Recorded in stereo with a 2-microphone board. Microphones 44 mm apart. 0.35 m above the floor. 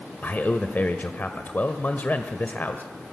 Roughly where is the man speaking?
Left.